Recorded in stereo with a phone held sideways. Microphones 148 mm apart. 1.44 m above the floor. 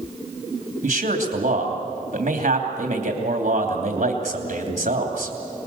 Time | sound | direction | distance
0.8 | a man speaking | 55° right (ahead or behind) | 3 m